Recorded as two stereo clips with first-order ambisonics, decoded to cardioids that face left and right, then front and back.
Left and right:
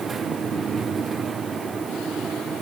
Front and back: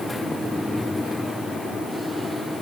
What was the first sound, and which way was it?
Only background noise.